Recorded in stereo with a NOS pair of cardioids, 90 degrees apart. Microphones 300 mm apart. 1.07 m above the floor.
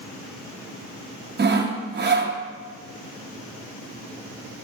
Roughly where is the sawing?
Ahead right.